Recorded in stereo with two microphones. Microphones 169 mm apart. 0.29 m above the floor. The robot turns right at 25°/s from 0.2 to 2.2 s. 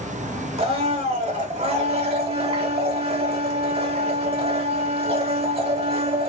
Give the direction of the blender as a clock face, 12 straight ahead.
4 o'clock.